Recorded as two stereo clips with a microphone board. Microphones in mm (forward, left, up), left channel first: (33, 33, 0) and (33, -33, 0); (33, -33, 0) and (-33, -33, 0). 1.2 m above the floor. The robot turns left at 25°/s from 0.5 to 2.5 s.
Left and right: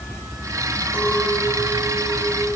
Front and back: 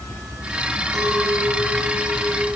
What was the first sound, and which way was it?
A clink, 155° left.